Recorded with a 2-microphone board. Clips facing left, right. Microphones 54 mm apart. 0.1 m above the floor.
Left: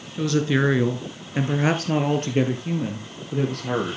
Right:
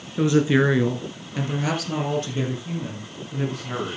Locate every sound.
0.2 s a woman speaking: 20° right (ahead or behind), 1.3 m; by 4.0 s 65° left (ahead or behind), 3.5 m